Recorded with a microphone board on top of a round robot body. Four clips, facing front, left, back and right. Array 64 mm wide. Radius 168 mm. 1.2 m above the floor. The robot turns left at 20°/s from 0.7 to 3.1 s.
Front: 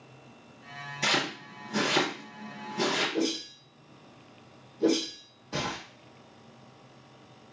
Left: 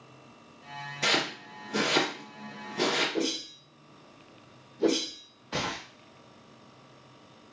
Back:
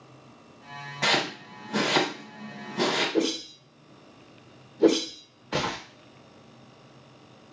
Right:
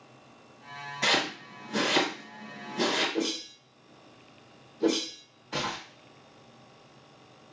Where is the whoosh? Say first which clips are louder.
Even, back 4 dB; 170° left, 0.7 m.